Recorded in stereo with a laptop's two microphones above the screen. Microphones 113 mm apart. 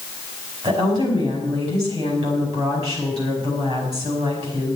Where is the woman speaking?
35° right (ahead or behind), 5 m.